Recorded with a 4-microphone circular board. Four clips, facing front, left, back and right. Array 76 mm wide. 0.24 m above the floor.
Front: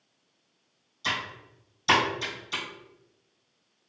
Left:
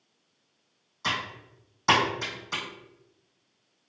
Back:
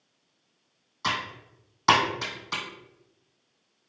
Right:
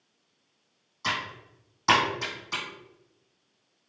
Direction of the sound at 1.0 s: 175° left.